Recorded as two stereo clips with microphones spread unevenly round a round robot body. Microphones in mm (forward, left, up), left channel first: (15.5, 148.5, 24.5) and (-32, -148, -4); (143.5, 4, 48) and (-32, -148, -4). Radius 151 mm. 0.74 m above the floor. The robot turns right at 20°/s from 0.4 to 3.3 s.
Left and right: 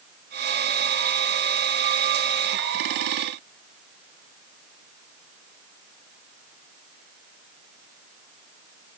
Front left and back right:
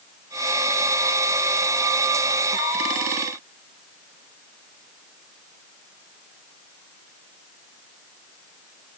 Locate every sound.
Only background noise.